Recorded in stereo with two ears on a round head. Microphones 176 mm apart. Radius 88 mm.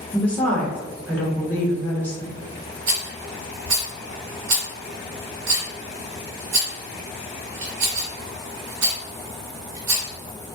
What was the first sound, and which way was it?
A woman speaking, 10° left (ahead or behind).